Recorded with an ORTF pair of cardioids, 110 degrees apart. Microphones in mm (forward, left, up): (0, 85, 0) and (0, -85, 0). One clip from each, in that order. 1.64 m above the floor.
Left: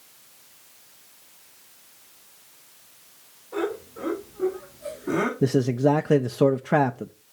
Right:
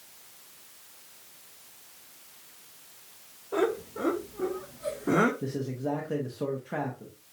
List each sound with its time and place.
3.5 s laughter: 35° right, 4 m; by 5.3 s 15° right, 2 m
5.4 s a man speaking: 60° left, 0.6 m